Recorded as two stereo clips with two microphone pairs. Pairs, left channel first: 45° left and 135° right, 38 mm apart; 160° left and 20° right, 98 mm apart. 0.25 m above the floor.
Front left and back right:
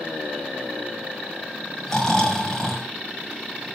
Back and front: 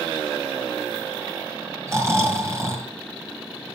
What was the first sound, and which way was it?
Snoring, 15° right.